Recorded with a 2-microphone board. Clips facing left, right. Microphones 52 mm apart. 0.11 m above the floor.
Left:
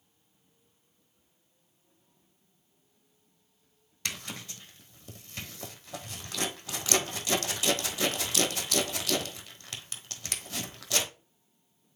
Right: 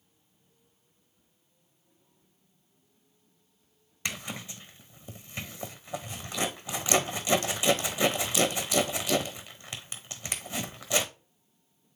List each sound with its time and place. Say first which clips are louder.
4.0 s a zipper: right 2 dB; 15° right (ahead or behind), 1.0 m